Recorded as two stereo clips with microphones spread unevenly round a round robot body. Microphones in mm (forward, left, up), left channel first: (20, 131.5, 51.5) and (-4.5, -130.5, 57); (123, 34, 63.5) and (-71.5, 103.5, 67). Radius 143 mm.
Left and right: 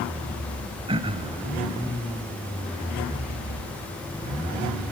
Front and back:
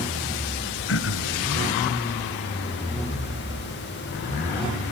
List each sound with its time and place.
0.9 s throat clearing: 25° right, 1.1 m